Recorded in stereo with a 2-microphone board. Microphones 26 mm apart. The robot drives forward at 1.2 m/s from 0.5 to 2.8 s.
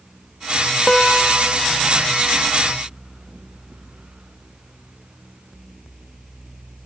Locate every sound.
0.9 s a guitar: 30° left (ahead or behind), 0.9 m; by 1.6 s 15° left (ahead or behind), 1.6 m